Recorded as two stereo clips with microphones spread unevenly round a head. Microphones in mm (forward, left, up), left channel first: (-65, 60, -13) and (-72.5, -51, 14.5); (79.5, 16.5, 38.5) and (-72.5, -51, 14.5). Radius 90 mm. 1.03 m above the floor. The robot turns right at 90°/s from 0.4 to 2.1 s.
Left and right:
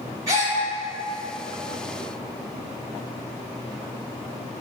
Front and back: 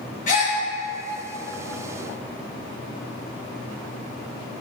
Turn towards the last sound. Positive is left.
turn(degrees=135)